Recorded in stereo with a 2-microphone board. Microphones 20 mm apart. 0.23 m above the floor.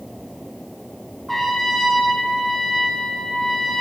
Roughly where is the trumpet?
Centre.